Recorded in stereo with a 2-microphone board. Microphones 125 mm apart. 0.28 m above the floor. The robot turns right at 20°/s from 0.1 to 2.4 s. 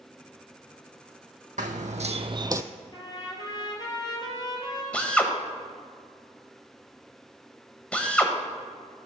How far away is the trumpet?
About 2.5 m.